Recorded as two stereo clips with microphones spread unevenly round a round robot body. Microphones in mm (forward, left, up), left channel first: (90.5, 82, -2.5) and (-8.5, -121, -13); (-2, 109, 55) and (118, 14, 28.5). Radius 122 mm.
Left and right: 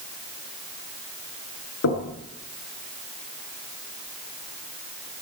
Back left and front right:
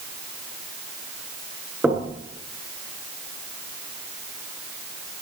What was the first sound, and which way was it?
Knocking, 45° left.